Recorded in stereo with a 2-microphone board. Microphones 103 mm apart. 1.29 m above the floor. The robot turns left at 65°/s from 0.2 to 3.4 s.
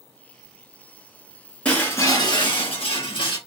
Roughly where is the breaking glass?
Behind.